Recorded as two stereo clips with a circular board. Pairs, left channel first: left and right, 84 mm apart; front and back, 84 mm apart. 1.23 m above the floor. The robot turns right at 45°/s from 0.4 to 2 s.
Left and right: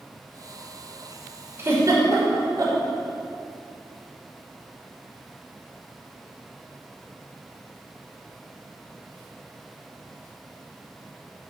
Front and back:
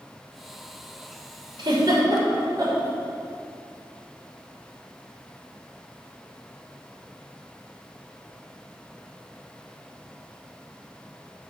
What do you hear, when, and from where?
1.6 s a giggle: 155° right, 3 m; by 2.8 s 135° right, 3 m